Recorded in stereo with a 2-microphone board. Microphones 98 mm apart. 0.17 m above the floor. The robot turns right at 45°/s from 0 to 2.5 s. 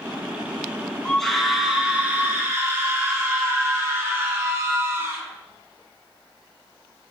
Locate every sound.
1.1 s a scream: 165° left, 1.9 m; by 5.2 s 130° right, 1.9 m